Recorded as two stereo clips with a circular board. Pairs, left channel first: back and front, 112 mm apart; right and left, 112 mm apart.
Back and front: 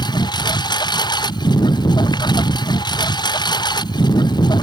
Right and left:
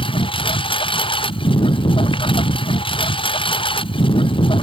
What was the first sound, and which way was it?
A lawn mower, 130° right.